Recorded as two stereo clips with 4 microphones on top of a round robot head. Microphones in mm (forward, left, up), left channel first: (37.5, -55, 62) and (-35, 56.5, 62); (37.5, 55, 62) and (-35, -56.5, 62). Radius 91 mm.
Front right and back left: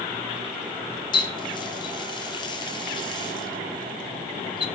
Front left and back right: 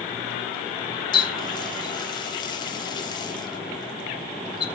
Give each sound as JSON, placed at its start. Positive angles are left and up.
{"t": 1.1, "sound": "a running tap", "azimuth_deg": 0, "distance_m": 1.8}